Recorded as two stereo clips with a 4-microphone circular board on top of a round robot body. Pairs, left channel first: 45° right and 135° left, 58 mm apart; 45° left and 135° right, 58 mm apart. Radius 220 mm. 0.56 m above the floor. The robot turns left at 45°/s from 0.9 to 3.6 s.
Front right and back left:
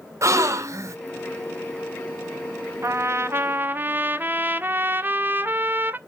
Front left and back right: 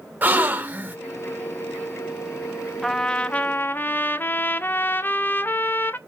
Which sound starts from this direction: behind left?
A trumpet, at 2.8 s.